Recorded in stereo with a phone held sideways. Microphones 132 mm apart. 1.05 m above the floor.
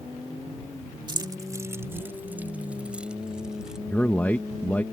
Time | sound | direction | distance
1.1 | keys jangling | 35° right (ahead or behind) | ?
3.9 | a man speaking | 15° left (ahead or behind) | ?